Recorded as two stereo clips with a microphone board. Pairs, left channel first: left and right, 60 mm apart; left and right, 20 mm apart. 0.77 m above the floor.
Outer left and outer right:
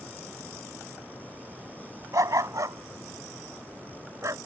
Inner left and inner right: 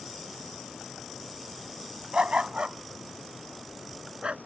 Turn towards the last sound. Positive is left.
turn(degrees=-60)  # may be behind; listen again after turning